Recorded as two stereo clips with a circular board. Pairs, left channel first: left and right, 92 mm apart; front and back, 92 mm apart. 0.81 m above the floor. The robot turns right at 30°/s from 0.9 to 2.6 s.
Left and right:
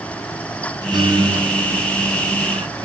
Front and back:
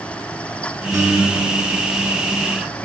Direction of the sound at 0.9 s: 130° right.